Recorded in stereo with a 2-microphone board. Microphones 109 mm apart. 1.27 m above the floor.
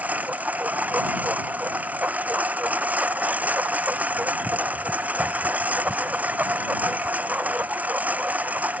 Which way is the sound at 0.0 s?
15° right (ahead or behind).